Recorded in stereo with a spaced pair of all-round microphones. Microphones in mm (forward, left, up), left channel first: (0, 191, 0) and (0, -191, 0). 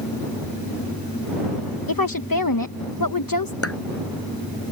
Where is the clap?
35° left (ahead or behind).